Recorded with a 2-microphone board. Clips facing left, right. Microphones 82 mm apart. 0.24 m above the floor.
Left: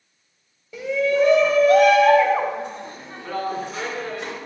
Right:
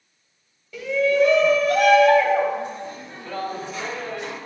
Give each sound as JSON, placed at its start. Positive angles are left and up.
{"t": 0.7, "sound": "a shout", "side_deg": 20, "distance_m": 0.9}